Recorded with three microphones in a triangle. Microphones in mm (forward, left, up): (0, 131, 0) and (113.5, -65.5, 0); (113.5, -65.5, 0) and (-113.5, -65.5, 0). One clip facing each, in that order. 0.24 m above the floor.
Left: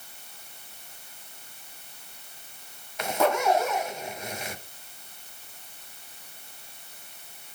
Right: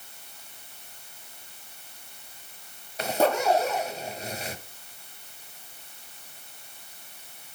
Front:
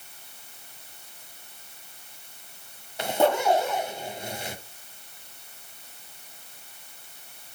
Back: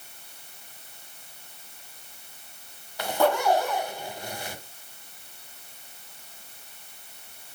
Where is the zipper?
50° right, 1.2 m.